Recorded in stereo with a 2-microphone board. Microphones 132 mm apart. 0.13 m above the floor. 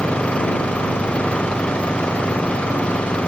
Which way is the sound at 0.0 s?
10° left (ahead or behind).